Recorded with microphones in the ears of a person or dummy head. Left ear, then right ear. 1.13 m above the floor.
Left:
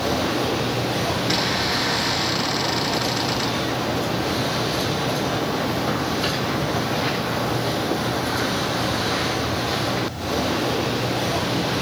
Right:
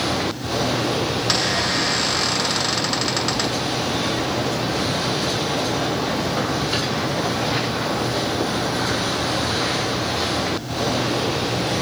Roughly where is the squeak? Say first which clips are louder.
Right 3 dB; right.